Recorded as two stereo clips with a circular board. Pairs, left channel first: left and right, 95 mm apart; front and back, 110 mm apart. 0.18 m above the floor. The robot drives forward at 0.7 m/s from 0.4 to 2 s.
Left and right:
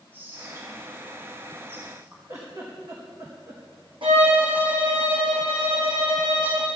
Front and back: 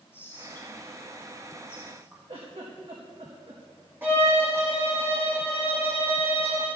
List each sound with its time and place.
0.1 s whispering: 50° right, 1.8 m; by 2.2 s 125° right, 1.7 m
2.3 s a giggle: 145° right, 4 m
4.0 s a violin: 110° right, 3 m